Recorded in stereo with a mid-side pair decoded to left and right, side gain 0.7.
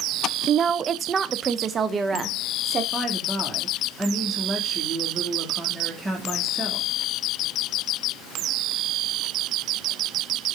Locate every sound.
0.5 s a woman speaking: 35° right, 0.5 m; by 2.8 s 30° right, 2 m
2.9 s a woman speaking: 15° right, 2.5 m